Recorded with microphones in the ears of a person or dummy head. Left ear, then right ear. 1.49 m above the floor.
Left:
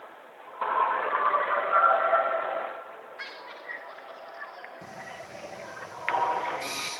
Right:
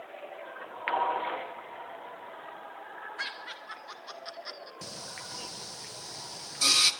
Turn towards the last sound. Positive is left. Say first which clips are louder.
# right 3 dB
turn(degrees=-50)  # may be behind; listen again after turning